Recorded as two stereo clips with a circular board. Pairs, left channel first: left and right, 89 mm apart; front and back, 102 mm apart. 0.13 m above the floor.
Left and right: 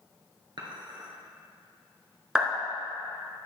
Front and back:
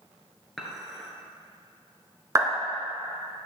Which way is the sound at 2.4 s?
165° right.